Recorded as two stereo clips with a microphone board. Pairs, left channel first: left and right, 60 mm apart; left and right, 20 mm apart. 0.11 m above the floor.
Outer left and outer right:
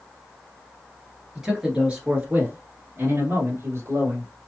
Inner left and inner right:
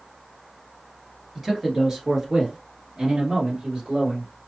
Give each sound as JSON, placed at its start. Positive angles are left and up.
{"t": 1.4, "sound": "a man speaking", "side_deg": -10, "distance_m": 1.5}